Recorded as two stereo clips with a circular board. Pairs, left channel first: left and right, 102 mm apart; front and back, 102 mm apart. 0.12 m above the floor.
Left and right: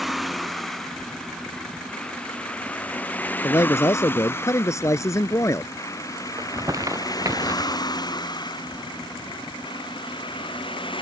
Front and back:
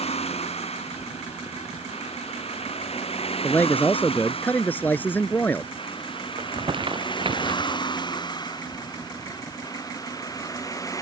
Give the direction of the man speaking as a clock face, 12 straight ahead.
10 o'clock.